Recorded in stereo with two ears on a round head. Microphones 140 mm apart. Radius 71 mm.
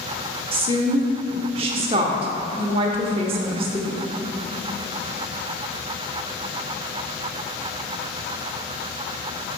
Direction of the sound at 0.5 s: 35° right (ahead or behind).